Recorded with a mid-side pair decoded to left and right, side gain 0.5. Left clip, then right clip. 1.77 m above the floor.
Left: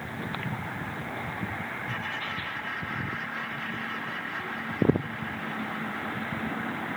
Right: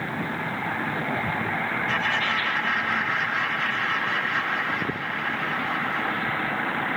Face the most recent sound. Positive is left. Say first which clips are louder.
# right 11 dB
turn(degrees=-60)